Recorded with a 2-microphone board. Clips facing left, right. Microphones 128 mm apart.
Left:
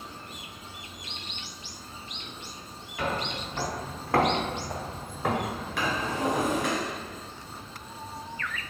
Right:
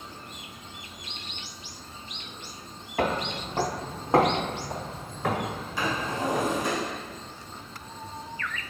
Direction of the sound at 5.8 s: 70° left (ahead or behind).